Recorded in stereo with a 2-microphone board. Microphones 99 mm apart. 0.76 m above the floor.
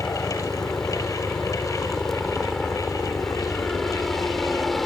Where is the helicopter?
5° left (ahead or behind); by 4.9 s centre (ahead or behind).